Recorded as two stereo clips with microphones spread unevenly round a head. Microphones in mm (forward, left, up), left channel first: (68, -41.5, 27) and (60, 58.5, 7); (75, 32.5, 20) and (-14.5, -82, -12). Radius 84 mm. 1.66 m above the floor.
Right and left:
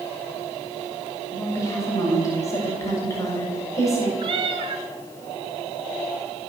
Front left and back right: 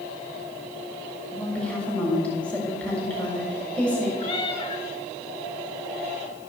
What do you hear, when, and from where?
1.3 s a woman speaking: 30° right, 7 m
4.2 s a cat meowing: 70° left, 1.9 m